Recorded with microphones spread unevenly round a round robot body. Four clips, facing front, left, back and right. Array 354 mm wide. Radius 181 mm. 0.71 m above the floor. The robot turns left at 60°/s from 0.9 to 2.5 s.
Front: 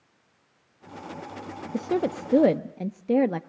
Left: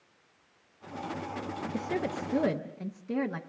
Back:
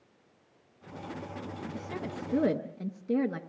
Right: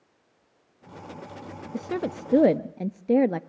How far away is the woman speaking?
About 0.6 m.